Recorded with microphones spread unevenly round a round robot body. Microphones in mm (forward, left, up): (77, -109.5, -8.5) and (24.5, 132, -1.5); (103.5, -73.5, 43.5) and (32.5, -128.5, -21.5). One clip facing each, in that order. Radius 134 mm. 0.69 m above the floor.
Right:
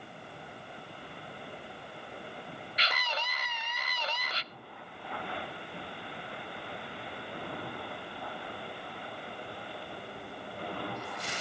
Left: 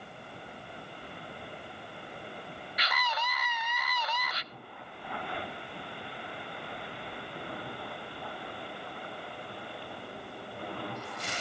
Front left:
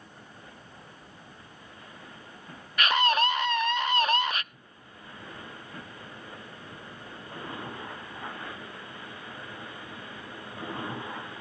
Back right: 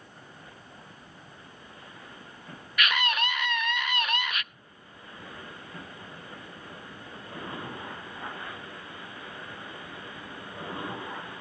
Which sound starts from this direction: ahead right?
A scream, at 2.8 s.